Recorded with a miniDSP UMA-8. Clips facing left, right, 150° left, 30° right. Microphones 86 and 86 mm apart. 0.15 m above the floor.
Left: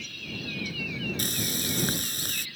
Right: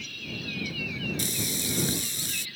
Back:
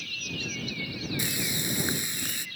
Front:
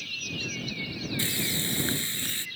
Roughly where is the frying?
Left.